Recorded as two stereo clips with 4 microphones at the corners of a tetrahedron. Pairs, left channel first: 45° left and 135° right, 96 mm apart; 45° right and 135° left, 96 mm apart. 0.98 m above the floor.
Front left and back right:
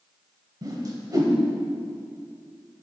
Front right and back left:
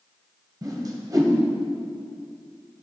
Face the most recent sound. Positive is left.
turn(degrees=180)